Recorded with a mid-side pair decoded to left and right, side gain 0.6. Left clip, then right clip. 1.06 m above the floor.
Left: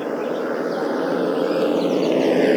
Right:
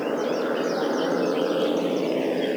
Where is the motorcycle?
10° left; by 2.6 s 50° left.